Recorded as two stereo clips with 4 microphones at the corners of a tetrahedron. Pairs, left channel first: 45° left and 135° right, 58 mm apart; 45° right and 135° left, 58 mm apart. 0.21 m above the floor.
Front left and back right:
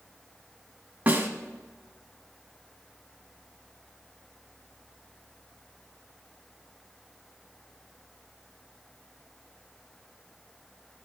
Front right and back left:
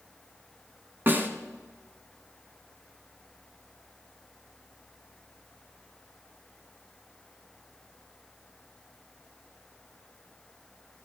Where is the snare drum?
170° left, 1.3 m.